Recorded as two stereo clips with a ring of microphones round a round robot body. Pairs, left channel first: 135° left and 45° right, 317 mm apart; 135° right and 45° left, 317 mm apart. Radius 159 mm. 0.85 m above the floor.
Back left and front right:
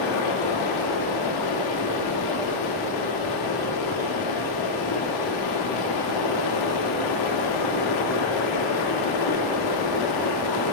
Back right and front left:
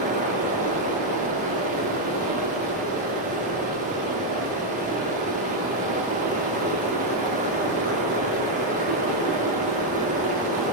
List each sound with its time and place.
0.0 s running water: 110° left, 0.9 m